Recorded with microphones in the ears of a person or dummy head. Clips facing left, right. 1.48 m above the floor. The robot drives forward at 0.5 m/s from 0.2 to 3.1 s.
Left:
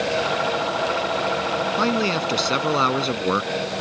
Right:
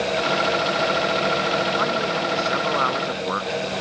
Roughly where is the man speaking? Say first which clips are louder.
Left 2 dB; left.